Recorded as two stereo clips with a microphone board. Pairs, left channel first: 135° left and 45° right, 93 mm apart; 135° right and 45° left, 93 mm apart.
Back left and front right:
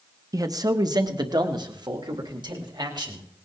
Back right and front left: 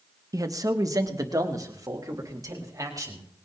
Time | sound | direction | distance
0.3 | a man speaking | straight ahead | 1.1 m